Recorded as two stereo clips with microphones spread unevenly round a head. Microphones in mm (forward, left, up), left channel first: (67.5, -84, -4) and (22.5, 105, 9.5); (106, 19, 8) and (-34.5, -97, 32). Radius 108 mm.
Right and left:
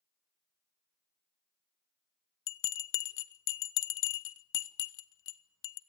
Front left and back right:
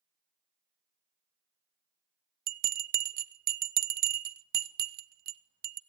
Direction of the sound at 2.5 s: 100° right.